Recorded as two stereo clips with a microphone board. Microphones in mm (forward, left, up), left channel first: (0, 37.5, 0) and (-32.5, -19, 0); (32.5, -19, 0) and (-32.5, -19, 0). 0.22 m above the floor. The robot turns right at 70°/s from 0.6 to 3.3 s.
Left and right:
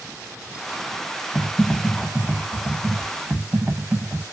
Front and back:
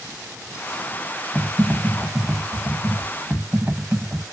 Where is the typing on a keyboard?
75° left, 0.8 m; by 4.2 s 150° right, 0.8 m.